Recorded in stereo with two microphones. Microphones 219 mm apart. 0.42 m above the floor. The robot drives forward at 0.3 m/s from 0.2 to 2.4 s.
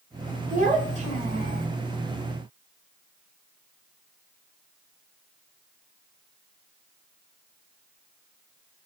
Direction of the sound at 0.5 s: 35° right (ahead or behind).